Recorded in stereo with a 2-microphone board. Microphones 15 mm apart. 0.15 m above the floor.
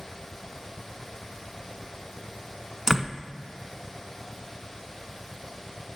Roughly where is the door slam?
Right.